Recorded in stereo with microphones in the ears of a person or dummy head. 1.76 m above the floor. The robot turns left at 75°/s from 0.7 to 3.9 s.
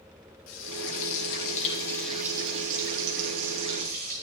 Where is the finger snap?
I don't hear a finger snap.